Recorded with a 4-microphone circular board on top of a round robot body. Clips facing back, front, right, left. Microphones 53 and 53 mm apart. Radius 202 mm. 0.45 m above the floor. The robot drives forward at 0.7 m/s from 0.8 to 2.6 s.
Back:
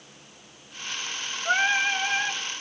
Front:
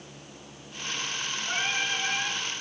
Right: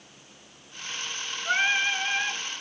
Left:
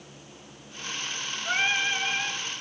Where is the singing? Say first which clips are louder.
Back 8 dB, right 2 dB; 170° right, 1.0 m; by 2.4 s 175° right, 1.6 m.